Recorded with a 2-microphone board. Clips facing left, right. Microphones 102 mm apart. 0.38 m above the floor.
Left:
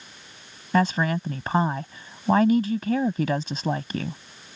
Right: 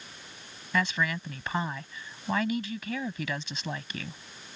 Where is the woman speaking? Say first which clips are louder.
Left 7 dB; 40° left (ahead or behind).